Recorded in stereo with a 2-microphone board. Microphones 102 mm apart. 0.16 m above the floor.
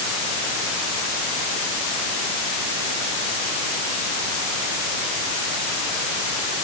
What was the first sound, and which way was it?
Only background noise.